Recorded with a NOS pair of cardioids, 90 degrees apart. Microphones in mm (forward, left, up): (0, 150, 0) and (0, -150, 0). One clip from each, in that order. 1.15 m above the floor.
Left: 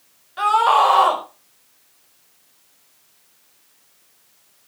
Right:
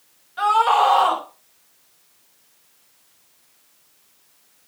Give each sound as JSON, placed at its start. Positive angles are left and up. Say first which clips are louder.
{"t": 0.4, "sound": "a scream", "louder": "left 1 dB", "azimuth_deg": 30, "distance_m": 5.5}